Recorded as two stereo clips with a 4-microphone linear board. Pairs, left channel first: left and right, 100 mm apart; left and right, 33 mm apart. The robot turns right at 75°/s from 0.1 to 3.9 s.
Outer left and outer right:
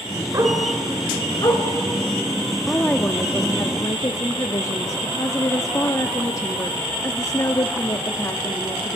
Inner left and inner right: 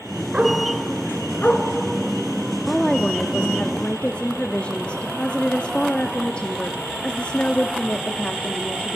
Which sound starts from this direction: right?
A dog barking, at 0.3 s.